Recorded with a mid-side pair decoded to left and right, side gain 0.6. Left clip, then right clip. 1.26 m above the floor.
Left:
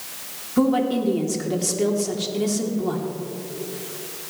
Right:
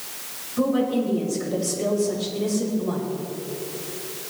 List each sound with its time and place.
0.6 s a woman speaking: 60° left, 3 m